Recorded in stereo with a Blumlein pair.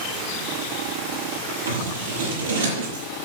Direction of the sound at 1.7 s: 65° right.